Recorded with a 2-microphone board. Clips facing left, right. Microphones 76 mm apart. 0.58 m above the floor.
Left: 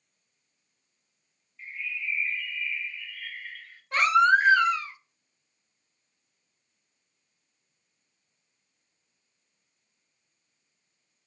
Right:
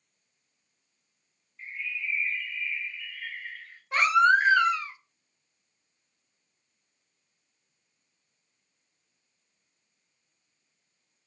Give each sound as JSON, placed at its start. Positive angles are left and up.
{"t": 1.6, "sound": "a bird", "side_deg": -30, "distance_m": 0.8}
{"t": 3.9, "sound": "a baby crying", "side_deg": -5, "distance_m": 0.8}